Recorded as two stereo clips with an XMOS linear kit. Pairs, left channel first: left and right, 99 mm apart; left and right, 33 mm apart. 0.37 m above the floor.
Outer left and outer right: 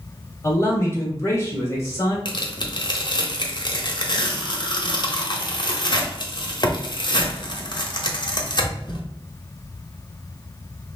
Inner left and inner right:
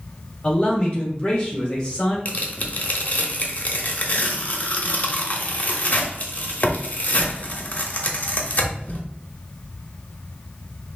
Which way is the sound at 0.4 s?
25° left (ahead or behind).